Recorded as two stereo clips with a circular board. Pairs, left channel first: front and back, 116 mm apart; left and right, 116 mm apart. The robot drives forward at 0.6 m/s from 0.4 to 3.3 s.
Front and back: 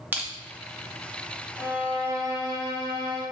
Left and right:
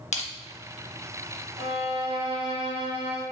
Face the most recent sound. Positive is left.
turn(degrees=-135)